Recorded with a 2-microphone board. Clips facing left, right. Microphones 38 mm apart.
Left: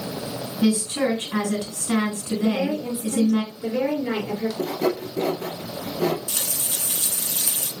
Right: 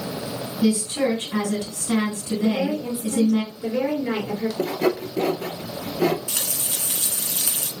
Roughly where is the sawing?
Right.